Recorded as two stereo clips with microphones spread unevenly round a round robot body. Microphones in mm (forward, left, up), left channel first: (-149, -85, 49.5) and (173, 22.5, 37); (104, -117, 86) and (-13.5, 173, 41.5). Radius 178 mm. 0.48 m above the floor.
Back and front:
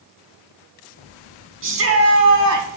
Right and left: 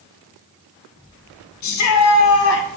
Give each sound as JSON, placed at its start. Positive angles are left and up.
{"t": 1.6, "sound": "a shout", "azimuth_deg": -35, "distance_m": 4.0}